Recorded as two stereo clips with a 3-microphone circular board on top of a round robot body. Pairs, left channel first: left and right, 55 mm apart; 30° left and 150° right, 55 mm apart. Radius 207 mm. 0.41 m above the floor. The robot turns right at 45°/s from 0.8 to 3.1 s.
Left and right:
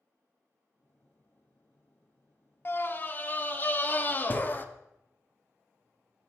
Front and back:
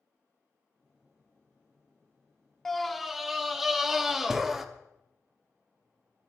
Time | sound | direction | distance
2.6 | a scream | 110° left | 1.3 m